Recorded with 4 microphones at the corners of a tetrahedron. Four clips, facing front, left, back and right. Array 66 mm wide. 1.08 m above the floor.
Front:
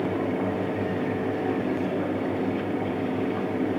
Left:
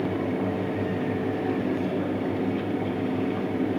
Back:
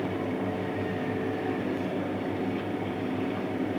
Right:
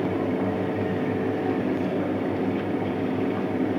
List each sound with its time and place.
Only background noise.